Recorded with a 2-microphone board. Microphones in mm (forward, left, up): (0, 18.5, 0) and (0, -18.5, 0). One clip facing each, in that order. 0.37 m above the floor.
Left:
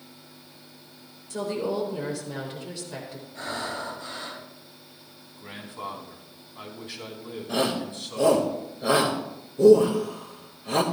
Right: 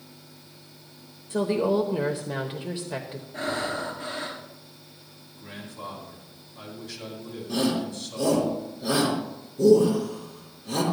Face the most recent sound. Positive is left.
turn(degrees=45)  # may be behind; listen again after turning